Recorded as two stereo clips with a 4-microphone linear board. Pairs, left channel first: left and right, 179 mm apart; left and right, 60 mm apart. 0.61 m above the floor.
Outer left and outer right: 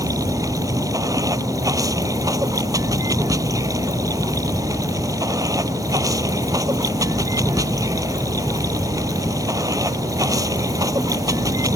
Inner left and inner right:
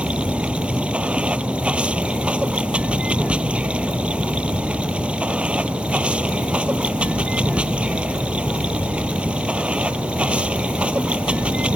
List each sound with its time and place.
0.0 s running water: 20° right (ahead or behind)